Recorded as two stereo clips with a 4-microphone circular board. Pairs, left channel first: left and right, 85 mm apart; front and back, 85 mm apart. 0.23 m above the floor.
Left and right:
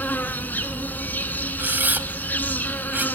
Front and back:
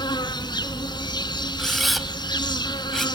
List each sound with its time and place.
0.0 s an insect: 25° left, 1.2 m
1.6 s a camera shutter: 90° right, 1.1 m